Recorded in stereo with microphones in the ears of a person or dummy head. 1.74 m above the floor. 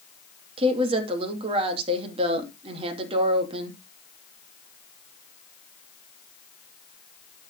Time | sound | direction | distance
0.6 | a woman speaking | 35° right (ahead or behind) | 2.5 m